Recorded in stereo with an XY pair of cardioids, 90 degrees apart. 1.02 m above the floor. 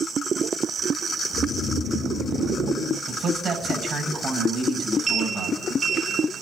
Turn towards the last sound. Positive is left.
turn(degrees=-45)